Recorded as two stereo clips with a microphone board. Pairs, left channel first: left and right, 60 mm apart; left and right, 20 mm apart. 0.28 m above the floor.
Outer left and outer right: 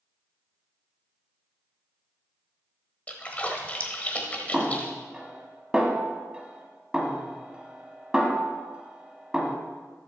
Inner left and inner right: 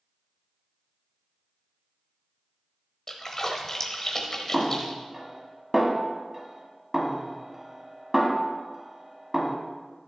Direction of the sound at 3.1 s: 25° left (ahead or behind).